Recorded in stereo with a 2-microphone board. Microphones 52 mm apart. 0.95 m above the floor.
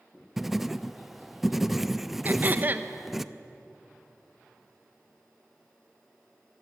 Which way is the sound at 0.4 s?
Centre (ahead or behind).